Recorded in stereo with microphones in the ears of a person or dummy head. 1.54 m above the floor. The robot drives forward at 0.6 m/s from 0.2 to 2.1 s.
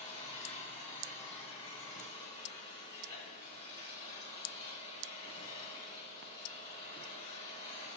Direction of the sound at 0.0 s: 35° left (ahead or behind).